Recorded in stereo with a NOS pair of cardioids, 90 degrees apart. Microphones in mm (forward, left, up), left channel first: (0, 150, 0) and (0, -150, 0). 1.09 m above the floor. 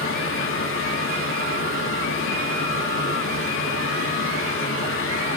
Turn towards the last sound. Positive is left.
turn(degrees=45)